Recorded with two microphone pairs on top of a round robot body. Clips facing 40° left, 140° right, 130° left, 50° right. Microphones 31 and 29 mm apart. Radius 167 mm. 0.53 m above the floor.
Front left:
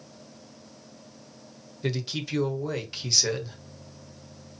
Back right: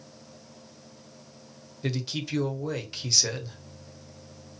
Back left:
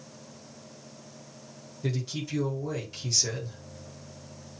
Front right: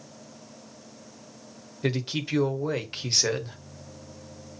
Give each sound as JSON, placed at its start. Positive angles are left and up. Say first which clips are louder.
{"t": 1.8, "sound": "a man speaking", "louder": "front left 1 dB, front right 5 dB", "azimuth_deg": -45, "distance_m": 1.2}